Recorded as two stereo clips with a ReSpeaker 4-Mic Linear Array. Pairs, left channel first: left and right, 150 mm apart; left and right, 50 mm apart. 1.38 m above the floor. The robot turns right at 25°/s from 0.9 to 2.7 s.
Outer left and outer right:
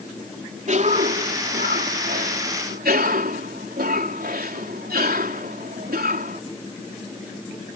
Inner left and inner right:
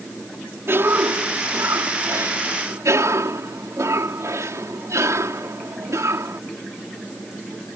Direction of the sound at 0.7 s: 125° right.